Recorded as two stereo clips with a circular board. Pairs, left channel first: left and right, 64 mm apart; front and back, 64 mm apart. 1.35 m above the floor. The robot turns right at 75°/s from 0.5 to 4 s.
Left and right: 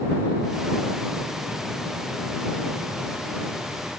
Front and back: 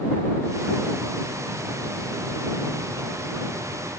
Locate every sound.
Only background noise.